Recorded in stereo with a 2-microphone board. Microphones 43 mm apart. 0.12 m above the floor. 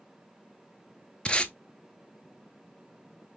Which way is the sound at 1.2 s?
25° left (ahead or behind).